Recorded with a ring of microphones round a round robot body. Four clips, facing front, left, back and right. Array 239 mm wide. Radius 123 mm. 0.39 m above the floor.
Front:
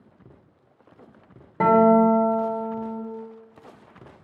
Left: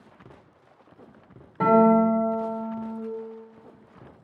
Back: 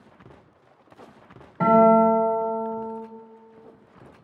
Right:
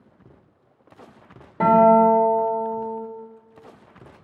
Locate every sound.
1.6 s a guitar: 30° right, 1.7 m